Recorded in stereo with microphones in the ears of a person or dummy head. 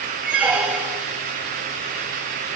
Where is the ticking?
I don't hear ticking.